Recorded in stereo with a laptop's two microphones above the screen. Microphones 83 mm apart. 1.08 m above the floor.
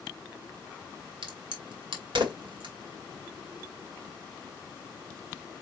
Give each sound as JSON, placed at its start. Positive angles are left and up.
{"t": 1.2, "sound": "a crack", "side_deg": -75, "distance_m": 2.0}